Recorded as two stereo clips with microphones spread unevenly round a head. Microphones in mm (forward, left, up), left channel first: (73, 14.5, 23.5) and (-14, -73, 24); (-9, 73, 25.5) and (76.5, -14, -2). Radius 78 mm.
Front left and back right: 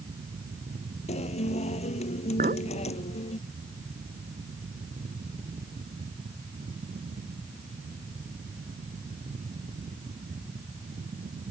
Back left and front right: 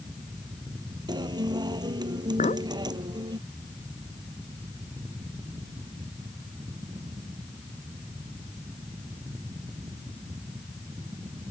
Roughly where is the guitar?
Ahead.